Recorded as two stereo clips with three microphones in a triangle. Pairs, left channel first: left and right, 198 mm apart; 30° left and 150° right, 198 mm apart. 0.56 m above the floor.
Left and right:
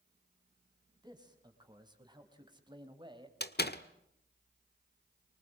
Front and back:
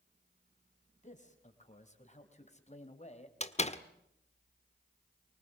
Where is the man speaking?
20° right, 4.5 m; by 3.3 s 25° right, 3 m.